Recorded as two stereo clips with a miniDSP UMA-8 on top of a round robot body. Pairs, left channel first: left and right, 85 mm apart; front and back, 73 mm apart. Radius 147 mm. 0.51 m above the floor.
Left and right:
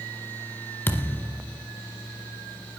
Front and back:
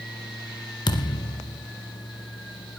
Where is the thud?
25° left, 2.0 m.